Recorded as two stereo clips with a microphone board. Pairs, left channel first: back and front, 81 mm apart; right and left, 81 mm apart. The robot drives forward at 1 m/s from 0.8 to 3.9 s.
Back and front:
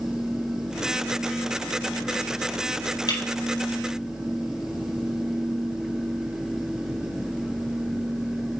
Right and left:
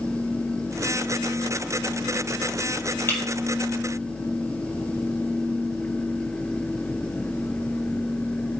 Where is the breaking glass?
150° right, 3.5 m.